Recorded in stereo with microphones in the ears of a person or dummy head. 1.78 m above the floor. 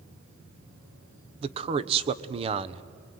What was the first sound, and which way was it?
A man speaking, 35° right (ahead or behind).